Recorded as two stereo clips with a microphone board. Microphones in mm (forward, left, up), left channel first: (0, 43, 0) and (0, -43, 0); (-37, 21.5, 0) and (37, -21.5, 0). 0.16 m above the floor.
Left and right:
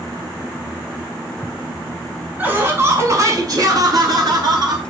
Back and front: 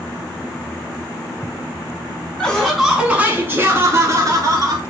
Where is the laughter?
140° right, 1.1 m; by 4.8 s 65° right, 2.0 m.